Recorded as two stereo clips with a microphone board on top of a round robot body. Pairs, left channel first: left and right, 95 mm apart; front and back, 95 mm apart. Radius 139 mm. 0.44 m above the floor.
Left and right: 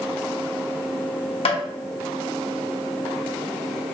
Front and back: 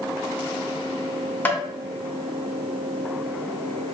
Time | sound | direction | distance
1.4 | tapping | 70° left | 0.9 m